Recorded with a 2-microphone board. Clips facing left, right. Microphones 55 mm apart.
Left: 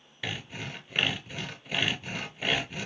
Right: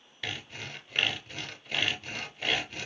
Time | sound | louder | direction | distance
0.2 | sawing | left 2 dB | 10° left (ahead or behind) | 0.7 m